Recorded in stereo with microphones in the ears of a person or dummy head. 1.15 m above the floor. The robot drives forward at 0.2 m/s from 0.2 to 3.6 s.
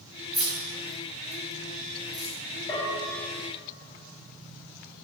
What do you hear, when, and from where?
0.3 s keys jangling: centre (ahead or behind), 1.1 m; by 2.4 s 5° left (ahead or behind), 0.7 m
2.7 s a bell: 15° left (ahead or behind), 0.8 m